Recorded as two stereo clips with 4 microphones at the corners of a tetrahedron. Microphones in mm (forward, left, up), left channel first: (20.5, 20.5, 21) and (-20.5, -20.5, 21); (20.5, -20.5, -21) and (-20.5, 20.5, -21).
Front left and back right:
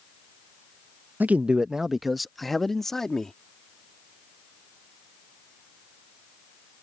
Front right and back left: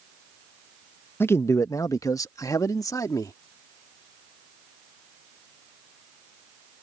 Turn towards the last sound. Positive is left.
turn(degrees=-35)